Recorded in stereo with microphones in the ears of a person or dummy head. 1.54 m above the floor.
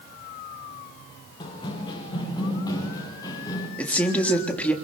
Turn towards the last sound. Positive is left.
turn(degrees=10)  # may be behind; listen again after turning